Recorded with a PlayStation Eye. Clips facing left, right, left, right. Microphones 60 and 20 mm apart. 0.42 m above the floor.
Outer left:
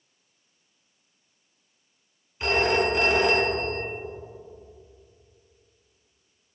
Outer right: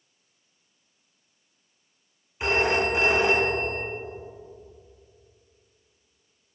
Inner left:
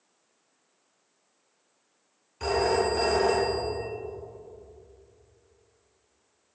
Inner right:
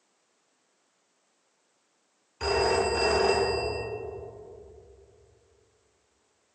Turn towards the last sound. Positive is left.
turn(degrees=-20)  # may be behind; listen again after turning